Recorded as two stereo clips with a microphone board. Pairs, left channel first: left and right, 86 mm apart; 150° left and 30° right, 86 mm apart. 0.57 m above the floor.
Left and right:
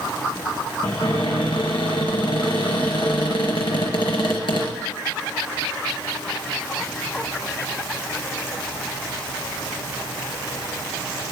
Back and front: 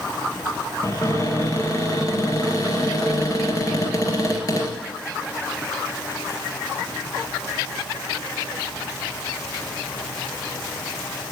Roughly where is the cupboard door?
Left.